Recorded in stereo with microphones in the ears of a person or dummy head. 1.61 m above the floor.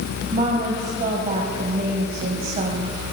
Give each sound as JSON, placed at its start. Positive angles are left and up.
{"t": 0.3, "sound": "a woman speaking", "side_deg": -40, "distance_m": 1.8}